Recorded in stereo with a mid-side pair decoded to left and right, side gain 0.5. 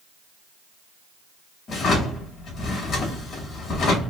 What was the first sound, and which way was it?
A drawer, 50° left.